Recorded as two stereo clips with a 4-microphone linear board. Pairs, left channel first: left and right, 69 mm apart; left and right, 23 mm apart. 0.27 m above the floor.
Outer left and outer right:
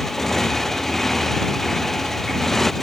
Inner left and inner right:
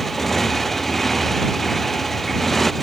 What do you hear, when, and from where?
0.0 s a motorcycle: 5° left (ahead or behind)